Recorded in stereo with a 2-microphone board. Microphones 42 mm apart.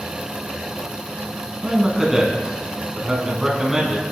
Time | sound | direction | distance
1.6 | a man speaking | 15° right (ahead or behind) | 1.0 m